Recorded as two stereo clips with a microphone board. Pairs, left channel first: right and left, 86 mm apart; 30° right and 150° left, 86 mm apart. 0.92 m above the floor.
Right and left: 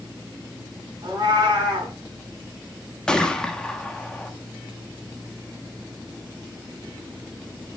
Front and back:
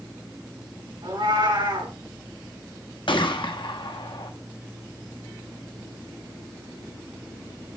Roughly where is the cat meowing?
Behind left.